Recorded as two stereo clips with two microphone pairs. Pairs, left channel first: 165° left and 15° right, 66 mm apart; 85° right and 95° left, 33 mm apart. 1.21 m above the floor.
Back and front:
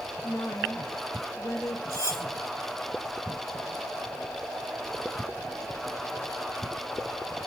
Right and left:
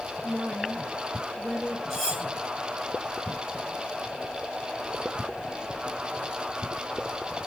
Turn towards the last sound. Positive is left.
turn(degrees=5)